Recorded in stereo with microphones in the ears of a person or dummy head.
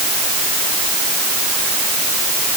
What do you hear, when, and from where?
Only background noise.